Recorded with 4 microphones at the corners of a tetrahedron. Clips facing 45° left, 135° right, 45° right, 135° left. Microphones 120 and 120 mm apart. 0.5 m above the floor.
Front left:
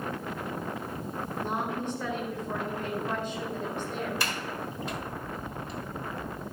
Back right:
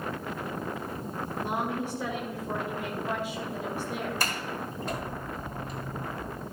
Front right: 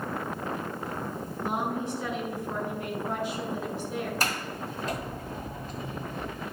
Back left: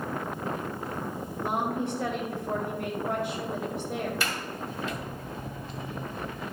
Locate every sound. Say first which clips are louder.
1.4 s a woman speaking: back right 1 dB, back left 1 dB; 145° left, 2 m
4.2 s a sliding door: back right 1 dB, front right 1 dB; 90° right, 1.7 m